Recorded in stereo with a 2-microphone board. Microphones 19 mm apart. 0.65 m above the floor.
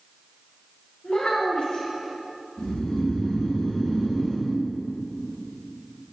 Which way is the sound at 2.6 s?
60° left (ahead or behind).